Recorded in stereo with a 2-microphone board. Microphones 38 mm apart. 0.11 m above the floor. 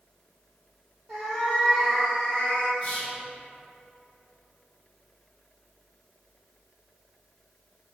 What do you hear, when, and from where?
1.1 s a cat meowing: 5° right (ahead or behind), 1.6 m; by 2.7 s 45° left (ahead or behind), 0.9 m
2.8 s whispering: 35° left (ahead or behind), 1.3 m